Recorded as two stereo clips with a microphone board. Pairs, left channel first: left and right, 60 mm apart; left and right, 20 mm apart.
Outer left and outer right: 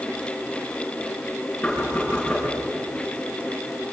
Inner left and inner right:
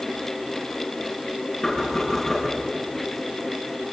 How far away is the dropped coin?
No dropped coin in this recording.